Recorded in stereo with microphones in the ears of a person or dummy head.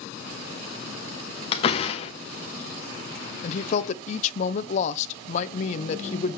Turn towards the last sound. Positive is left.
turn(degrees=45)  # may be behind; listen again after turning